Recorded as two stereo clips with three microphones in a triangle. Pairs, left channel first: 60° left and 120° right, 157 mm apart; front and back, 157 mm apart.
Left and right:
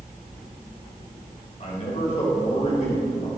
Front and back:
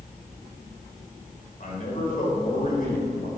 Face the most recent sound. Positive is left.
turn(degrees=25)